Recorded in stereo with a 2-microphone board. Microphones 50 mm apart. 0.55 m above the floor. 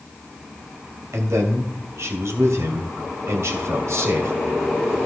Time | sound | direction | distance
1.1 | a man speaking | 70° right (ahead or behind) | 2.5 m